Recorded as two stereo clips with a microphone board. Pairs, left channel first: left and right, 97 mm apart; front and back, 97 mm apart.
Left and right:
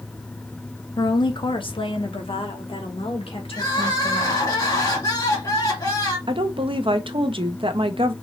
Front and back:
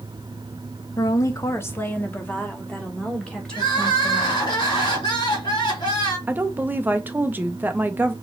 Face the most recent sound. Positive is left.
turn(degrees=-110)